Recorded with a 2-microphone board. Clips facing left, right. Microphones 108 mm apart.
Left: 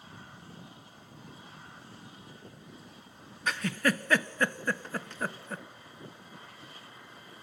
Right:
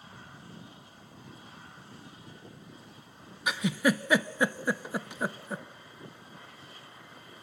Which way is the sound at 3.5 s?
10° right (ahead or behind).